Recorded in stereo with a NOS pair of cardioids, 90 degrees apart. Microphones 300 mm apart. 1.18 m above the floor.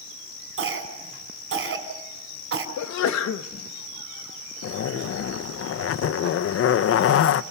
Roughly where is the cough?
Ahead right.